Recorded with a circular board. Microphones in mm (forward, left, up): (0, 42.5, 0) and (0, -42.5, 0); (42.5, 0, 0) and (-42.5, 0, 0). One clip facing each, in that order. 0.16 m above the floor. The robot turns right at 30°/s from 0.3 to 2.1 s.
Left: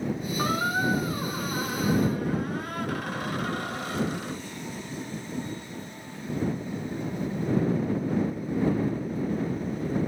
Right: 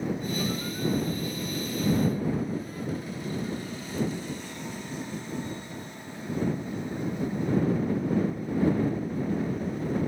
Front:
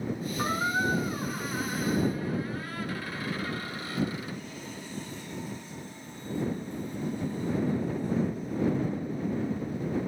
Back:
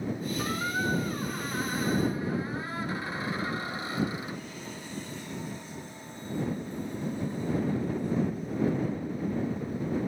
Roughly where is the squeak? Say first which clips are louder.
Left 4 dB, front 4 dB; ahead left.